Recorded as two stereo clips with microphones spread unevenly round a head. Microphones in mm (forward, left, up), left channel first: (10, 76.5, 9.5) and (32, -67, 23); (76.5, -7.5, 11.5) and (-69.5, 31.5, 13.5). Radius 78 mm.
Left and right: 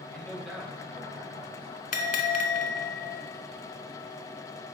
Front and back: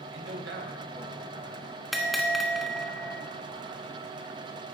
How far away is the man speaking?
About 2 m.